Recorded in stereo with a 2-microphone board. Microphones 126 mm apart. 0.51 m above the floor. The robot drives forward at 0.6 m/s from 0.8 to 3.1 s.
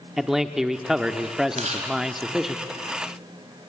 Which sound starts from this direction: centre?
A man speaking, at 0.2 s.